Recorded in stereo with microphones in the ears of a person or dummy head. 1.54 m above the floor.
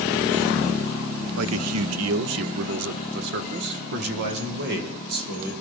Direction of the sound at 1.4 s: 75° right (ahead or behind).